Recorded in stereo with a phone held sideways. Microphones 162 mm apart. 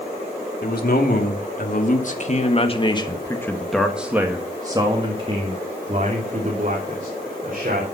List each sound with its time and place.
0.6 s a man speaking: 70° left (ahead or behind), 3 m; by 7.8 s 55° right (ahead or behind), 4.5 m